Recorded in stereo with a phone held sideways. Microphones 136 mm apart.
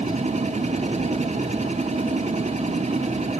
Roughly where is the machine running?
Right.